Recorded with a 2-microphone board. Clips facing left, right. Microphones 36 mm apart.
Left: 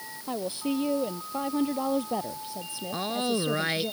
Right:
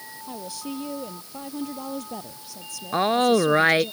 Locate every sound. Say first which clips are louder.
0.3 s a woman speaking: left 5 dB; 25° left (ahead or behind)
2.9 s a woman speaking: right 10 dB; 40° right (ahead or behind)